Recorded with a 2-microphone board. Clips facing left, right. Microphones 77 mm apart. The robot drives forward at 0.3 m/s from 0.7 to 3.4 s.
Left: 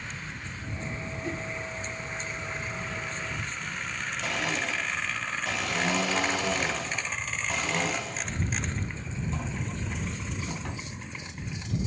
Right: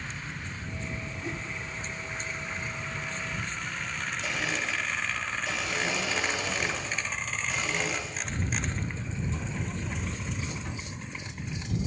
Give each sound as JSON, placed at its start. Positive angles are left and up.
{"t": 1.2, "sound": "a whoosh", "side_deg": -5, "distance_m": 4.5}
{"t": 4.2, "sound": "a blender", "side_deg": 60, "distance_m": 2.0}